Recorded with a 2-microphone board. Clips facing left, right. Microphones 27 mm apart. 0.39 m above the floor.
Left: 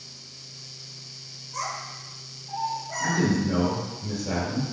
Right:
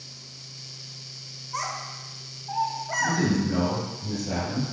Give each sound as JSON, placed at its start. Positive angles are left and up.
{"t": 1.5, "sound": "a child speaking", "side_deg": -45, "distance_m": 1.8}
{"t": 3.0, "sound": "a man speaking", "side_deg": 45, "distance_m": 1.9}